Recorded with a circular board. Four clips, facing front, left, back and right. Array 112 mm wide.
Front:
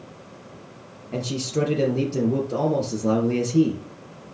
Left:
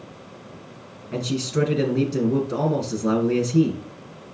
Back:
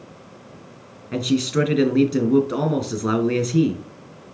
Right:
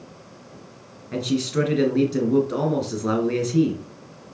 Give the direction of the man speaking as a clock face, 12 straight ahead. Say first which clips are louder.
Right 2 dB, back 6 dB; 6 o'clock.